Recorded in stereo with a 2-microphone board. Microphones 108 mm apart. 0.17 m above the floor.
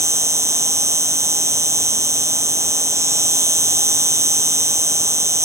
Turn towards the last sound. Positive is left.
turn(degrees=-25)  # may be behind; listen again after turning